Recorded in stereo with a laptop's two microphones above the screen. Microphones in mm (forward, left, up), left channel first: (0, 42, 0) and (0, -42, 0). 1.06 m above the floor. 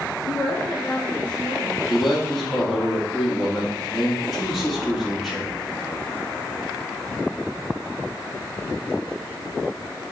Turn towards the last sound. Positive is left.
turn(degrees=0)  # may be behind; listen again after turning